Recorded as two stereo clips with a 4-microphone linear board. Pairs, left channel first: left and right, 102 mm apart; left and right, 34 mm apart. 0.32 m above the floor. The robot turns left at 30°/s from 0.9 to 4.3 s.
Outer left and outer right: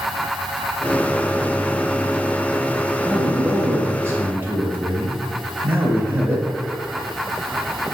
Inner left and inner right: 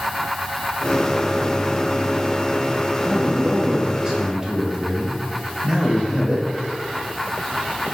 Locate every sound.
3.0 s a man speaking: 20° right (ahead or behind), 0.9 m